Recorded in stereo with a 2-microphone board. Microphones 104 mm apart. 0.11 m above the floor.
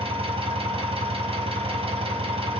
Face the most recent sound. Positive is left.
turn(degrees=-65)  # may be behind; listen again after turning